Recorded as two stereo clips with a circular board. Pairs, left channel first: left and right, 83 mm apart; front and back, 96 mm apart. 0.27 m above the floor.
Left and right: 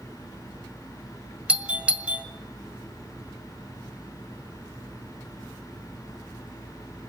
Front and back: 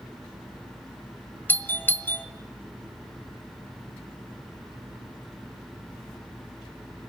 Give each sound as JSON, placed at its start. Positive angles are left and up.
{"t": 1.5, "sound": "a doorbell", "azimuth_deg": -35, "distance_m": 1.6}